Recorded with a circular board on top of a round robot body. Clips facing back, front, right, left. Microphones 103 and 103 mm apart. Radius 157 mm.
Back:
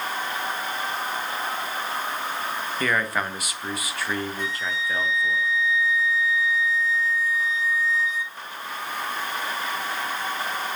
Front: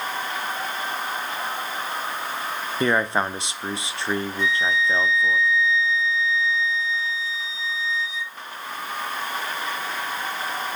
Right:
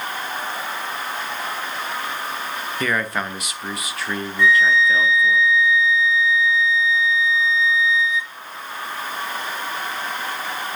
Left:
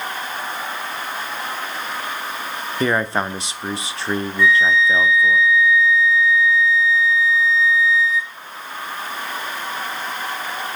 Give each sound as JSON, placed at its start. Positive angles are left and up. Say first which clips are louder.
{"t": 2.8, "sound": "a man speaking", "louder": "front 5 dB, left 5 dB", "azimuth_deg": 45, "distance_m": 1.2}
{"t": 4.4, "sound": "a flute", "louder": "front 6 dB, even", "azimuth_deg": -150, "distance_m": 2.0}